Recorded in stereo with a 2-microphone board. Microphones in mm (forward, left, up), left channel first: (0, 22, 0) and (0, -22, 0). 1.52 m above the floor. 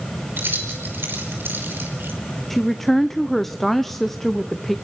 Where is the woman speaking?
5° left (ahead or behind), 0.7 m.